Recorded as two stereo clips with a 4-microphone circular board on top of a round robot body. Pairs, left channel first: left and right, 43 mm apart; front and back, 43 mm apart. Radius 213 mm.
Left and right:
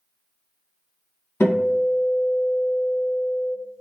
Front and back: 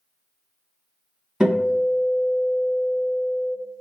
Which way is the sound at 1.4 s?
100° left.